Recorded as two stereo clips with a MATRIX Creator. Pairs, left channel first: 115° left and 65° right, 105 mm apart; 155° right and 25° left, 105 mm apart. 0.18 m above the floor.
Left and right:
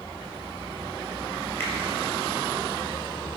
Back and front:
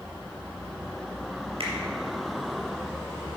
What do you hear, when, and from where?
1.6 s a finger snap: 45° left, 3.5 m